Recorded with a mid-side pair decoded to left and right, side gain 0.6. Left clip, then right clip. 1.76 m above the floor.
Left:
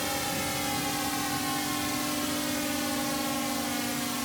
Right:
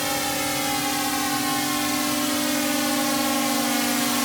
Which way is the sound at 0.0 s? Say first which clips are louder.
Right 6 dB; 35° right.